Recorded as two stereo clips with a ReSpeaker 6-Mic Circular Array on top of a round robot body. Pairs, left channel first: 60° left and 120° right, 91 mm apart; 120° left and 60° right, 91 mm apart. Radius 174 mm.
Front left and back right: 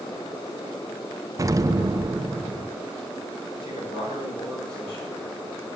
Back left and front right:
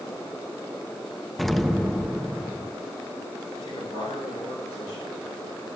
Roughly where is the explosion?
Behind right.